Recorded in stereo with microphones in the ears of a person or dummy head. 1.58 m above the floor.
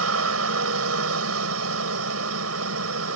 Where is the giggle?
No giggle in this recording.